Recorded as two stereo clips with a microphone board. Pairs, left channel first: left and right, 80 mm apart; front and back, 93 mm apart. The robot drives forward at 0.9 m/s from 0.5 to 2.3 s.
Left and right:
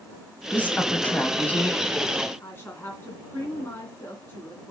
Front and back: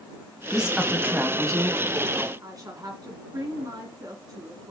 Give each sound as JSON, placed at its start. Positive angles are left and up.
{"t": 0.5, "sound": "a woman speaking", "azimuth_deg": 100, "distance_m": 1.4}
{"t": 2.4, "sound": "a woman speaking", "azimuth_deg": 145, "distance_m": 2.0}